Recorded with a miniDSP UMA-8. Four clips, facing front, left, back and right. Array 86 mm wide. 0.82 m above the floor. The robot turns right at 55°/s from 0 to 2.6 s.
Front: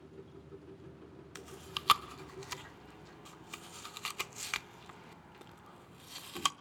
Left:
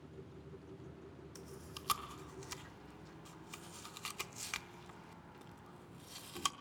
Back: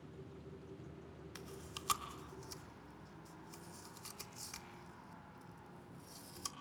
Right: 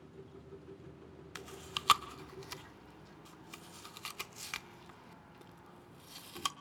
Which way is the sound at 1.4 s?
70° right.